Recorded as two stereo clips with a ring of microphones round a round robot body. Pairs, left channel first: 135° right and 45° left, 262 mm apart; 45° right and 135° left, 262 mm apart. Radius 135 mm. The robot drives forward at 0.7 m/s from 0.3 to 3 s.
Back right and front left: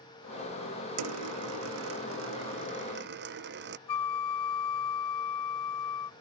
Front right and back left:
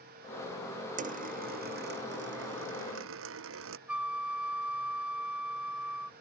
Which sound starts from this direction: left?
A dropped coin, at 1.0 s.